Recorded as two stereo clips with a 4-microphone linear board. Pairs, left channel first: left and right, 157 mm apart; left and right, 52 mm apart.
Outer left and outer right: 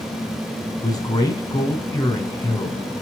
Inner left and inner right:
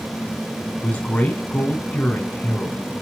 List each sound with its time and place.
0.8 s a man speaking: 25° left (ahead or behind), 2.5 m